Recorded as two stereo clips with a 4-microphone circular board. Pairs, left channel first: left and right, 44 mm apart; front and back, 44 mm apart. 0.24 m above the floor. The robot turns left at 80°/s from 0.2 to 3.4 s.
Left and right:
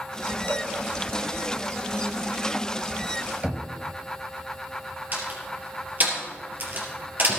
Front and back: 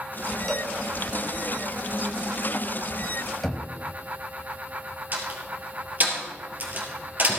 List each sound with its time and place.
0.5 s a cowbell: 80° left, 1.7 m; by 0.7 s 55° left, 1.7 m
3.4 s knocking: 75° right, 1.2 m
5.1 s a door slam: 135° right, 3.5 m